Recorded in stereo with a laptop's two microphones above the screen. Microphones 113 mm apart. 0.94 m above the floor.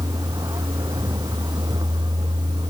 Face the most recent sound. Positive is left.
turn(degrees=-40)  # may be behind; listen again after turning